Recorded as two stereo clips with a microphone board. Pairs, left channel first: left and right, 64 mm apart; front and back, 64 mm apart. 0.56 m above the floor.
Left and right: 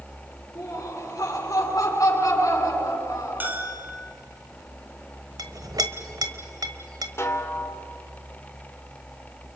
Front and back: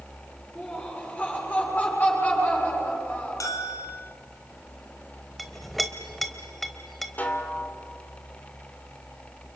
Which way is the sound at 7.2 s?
55° left.